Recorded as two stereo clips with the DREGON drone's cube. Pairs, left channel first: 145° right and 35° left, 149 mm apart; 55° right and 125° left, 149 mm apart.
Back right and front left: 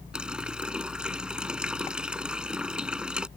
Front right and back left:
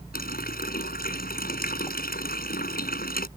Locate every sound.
0.1 s a running tap: 50° right